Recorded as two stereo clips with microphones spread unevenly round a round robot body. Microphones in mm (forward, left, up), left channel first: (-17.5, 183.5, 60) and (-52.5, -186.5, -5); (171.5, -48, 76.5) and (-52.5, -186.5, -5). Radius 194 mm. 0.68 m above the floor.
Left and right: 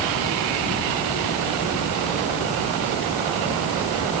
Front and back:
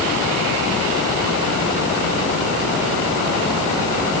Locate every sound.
Only background noise.